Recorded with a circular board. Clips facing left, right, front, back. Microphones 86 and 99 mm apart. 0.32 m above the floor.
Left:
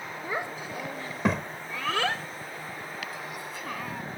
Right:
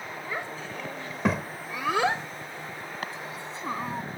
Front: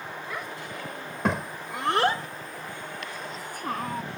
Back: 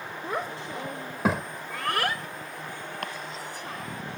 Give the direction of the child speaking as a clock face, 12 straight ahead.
7 o'clock.